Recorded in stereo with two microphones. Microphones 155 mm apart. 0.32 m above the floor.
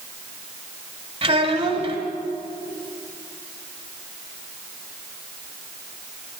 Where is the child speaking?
40° right (ahead or behind), 1.5 m.